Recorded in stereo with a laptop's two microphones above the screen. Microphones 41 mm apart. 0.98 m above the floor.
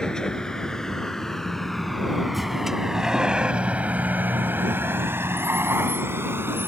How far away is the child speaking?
I don't hear a child speaking.